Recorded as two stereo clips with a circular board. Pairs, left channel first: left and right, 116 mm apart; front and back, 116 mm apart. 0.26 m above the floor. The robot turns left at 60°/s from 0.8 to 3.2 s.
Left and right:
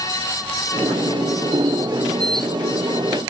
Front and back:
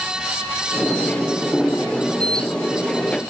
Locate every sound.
Only background noise.